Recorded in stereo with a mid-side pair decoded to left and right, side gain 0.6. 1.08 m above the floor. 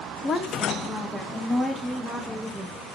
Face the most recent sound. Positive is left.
turn(degrees=0)